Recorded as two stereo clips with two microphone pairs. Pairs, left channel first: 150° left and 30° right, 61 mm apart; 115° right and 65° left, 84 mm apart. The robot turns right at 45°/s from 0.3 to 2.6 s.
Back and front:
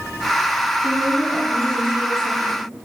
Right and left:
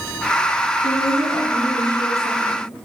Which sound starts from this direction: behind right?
A woman speaking, at 0.8 s.